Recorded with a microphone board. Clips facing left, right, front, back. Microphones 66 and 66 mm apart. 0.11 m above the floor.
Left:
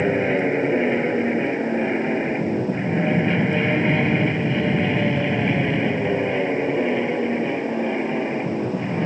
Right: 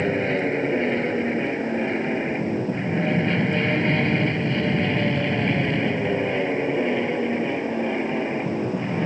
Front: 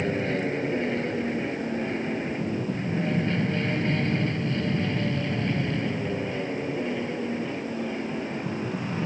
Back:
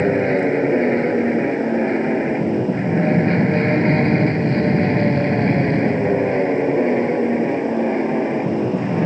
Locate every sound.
0.0 s an aircraft: 165° left; by 9.1 s 175° left